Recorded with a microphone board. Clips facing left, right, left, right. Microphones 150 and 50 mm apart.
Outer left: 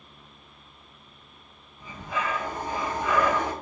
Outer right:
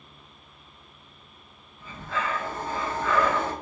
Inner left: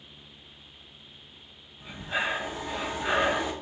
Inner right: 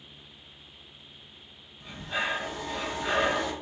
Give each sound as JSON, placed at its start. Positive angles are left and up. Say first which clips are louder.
{"t": 1.8, "sound": "breathing", "louder": "even, inner left 1 dB", "side_deg": 15, "distance_m": 0.6}